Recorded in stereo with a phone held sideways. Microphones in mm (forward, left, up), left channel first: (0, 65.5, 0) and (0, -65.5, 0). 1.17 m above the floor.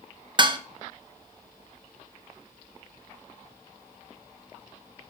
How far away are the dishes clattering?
About 0.6 m.